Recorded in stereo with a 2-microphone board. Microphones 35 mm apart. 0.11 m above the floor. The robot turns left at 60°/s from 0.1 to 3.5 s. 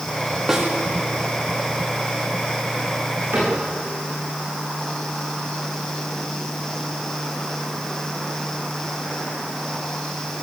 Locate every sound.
0.5 s a snare drum: 10° right (ahead or behind), 6.5 m; by 0.7 s centre (ahead or behind), 6.5 m
3.3 s a cupboard door: 75° right (ahead or behind), 10 m; by 3.6 s 70° right (ahead or behind), 10 m